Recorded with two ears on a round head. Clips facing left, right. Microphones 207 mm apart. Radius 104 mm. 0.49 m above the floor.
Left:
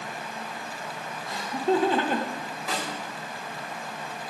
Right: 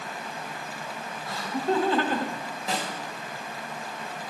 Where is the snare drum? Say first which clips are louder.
Right 2 dB; 25° right (ahead or behind), 2.5 m.